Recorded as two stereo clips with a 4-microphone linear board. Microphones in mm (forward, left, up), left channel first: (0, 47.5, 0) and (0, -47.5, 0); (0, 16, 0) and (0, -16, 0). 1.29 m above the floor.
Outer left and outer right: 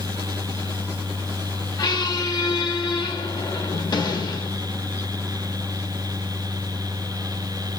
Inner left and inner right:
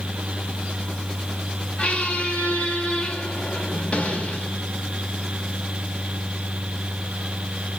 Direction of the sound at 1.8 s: 45° left (ahead or behind).